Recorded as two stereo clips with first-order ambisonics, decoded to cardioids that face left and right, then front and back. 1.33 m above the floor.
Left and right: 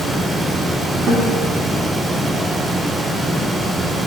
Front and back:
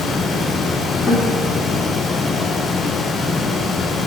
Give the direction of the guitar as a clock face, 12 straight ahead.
3 o'clock.